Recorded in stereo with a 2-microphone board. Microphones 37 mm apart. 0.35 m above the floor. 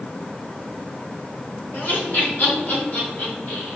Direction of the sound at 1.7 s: 45° left (ahead or behind).